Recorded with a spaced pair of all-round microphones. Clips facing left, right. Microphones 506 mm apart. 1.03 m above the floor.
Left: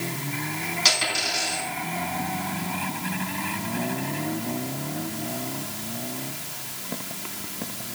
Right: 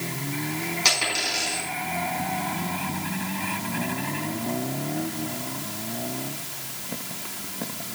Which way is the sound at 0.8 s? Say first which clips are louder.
Even; 40° left (ahead or behind).